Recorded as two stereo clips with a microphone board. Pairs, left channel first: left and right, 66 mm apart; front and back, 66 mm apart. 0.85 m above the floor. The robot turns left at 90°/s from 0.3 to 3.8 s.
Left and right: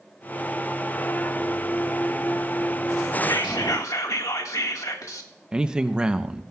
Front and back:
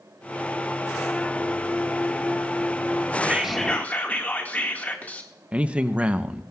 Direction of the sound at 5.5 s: 145° right.